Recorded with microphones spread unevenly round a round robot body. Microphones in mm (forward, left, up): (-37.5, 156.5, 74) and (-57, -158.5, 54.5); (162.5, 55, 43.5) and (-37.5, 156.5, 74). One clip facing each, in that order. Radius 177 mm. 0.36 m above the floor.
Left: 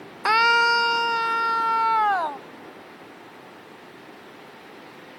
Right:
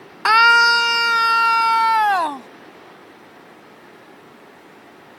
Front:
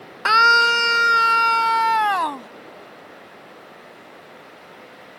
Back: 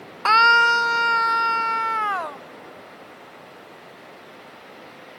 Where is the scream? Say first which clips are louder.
Right 2 dB, front 1 dB; 75° right; by 2.5 s 60° right.